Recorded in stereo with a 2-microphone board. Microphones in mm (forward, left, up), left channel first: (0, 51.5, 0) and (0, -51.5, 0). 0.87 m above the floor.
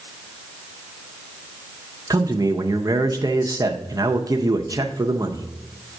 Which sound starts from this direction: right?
A man speaking, at 2.1 s.